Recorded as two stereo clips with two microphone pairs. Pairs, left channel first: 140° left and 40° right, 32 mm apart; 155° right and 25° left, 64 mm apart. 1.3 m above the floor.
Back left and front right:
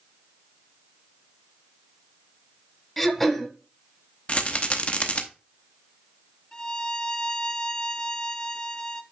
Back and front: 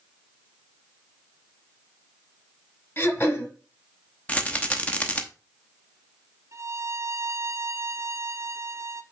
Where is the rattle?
150° left, 0.8 m.